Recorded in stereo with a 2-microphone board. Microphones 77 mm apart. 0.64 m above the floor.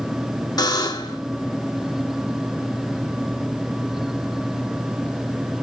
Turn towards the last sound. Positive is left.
turn(degrees=60)  # may be behind; listen again after turning